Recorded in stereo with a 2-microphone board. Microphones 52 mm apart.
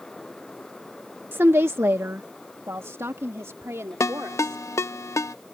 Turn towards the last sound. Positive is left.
turn(degrees=70)  # may be behind; listen again after turning